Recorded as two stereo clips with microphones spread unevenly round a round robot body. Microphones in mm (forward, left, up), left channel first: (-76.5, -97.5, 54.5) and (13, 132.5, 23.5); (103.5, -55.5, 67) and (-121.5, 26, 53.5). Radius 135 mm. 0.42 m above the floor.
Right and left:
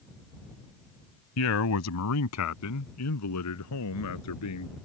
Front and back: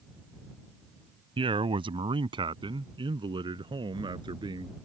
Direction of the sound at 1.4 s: 130° right.